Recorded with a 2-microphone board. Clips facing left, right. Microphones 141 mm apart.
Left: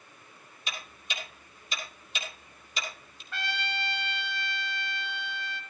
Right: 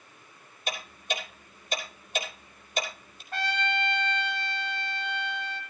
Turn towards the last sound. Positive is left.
turn(degrees=-45)  # may be behind; listen again after turning